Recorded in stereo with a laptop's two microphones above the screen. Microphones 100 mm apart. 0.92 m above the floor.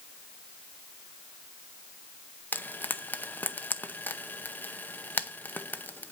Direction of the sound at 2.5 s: 20° left (ahead or behind).